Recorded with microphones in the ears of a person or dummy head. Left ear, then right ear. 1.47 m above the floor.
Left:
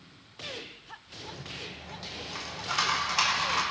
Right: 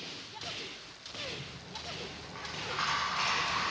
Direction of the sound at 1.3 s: 90° left.